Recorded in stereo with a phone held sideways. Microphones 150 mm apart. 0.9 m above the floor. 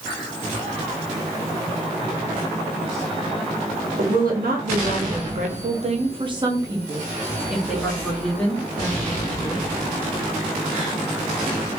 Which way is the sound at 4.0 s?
70° right (ahead or behind).